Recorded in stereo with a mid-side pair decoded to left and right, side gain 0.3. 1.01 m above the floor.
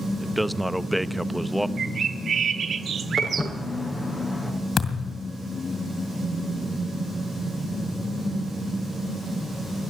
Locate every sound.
0.2 s a man speaking: 5° right, 0.7 m
1.8 s a bird: 65° right, 1.1 m
3.2 s footsteps: 25° left, 6.5 m
4.8 s a thud: 60° left, 2 m